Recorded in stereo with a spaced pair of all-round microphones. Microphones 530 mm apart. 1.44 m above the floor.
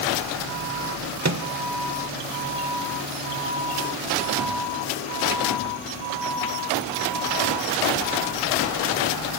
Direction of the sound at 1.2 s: 35° right (ahead or behind).